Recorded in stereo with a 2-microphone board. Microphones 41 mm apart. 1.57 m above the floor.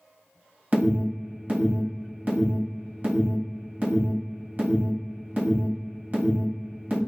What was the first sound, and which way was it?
An alarm, 40° right (ahead or behind).